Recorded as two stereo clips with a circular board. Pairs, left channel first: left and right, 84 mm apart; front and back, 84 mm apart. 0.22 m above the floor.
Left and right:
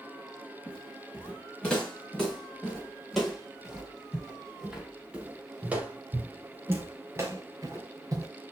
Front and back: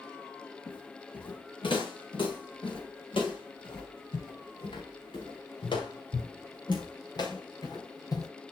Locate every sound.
0.7 s footsteps: 20° left, 5.5 m; by 8.3 s 45° right, 3.5 m